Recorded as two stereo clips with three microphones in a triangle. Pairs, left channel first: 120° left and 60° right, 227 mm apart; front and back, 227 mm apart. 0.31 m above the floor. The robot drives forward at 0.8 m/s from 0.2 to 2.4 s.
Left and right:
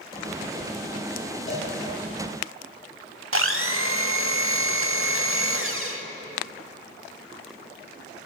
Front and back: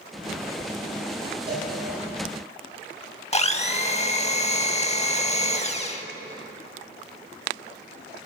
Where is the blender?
60° right, 0.6 m.